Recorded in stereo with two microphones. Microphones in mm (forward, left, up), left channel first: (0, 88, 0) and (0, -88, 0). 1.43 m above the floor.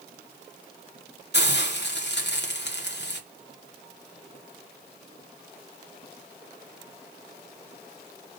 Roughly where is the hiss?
Left.